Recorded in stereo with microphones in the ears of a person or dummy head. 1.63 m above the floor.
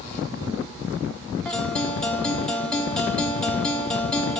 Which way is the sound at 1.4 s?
5° left (ahead or behind).